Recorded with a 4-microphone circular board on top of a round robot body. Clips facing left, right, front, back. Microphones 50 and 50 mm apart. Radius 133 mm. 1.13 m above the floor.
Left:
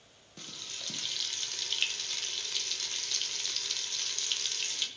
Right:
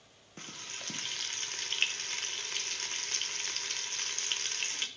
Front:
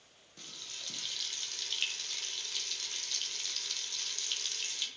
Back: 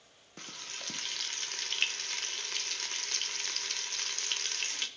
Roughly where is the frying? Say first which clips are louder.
Right 1 dB, back 4 dB; behind right.